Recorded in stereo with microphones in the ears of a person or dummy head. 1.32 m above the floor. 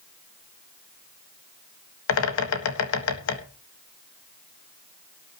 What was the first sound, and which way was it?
A bird, 80° left.